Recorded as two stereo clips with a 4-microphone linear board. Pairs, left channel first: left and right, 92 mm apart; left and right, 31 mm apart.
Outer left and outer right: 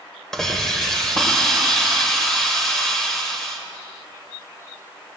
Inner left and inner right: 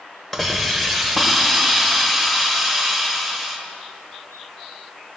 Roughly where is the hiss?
Centre.